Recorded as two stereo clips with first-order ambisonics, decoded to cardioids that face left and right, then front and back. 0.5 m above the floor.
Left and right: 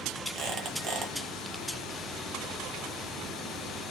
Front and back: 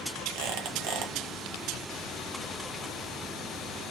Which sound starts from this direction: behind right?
A squeak, at 0.3 s.